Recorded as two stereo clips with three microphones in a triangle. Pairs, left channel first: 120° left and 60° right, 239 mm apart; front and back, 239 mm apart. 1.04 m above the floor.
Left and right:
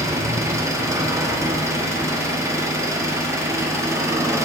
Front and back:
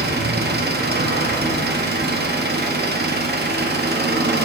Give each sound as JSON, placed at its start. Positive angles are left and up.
{"t": 0.0, "sound": "an engine running", "azimuth_deg": -135, "distance_m": 0.7}